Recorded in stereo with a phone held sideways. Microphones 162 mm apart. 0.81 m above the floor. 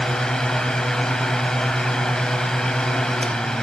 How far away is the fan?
About 1.0 m.